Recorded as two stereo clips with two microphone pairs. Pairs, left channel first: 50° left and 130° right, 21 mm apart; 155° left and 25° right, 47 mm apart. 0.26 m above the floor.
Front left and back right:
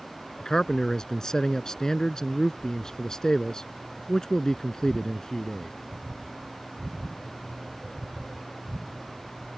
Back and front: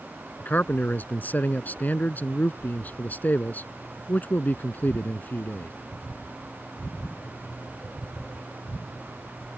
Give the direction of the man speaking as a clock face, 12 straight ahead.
8 o'clock.